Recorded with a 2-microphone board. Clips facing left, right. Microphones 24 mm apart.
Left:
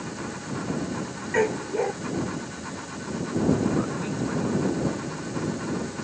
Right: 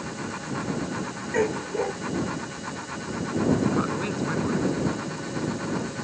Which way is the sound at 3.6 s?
25° right (ahead or behind).